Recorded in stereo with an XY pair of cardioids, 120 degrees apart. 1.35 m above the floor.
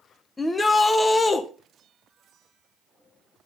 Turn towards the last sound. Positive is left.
turn(degrees=20)